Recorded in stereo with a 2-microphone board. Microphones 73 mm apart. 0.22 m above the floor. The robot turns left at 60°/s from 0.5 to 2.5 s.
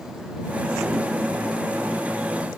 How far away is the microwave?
No microwave in this recording.